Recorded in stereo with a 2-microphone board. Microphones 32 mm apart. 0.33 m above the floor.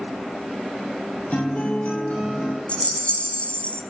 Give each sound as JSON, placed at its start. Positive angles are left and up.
{"t": 1.3, "sound": "a guitar", "side_deg": 40, "distance_m": 8.5}
{"t": 2.7, "sound": "a rattle", "side_deg": 45, "distance_m": 1.4}